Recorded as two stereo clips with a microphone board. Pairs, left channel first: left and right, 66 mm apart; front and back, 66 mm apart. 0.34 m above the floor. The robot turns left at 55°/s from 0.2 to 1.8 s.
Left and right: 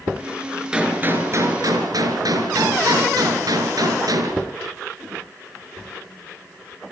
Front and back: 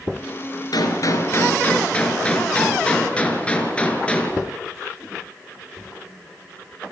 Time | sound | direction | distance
0.7 | a gunshot | 10° right | 4.5 m